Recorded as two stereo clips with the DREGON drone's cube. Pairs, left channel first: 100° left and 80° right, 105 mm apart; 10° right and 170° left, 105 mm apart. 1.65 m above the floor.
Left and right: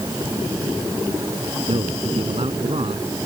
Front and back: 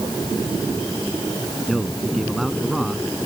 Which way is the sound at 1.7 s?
100° right.